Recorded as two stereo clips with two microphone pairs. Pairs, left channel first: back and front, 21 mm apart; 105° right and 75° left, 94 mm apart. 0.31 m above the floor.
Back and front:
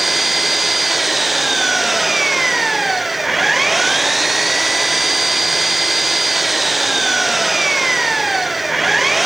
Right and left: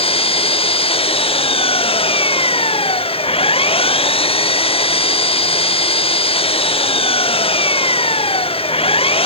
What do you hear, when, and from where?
0.0 s an engine running: 85° right